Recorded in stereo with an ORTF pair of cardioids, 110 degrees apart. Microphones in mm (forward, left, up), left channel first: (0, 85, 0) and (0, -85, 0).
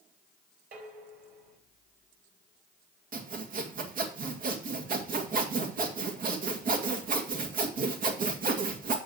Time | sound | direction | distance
0.7 | dishes clattering | 55° right | 4.5 m
3.1 | sawing | 50° right | 2 m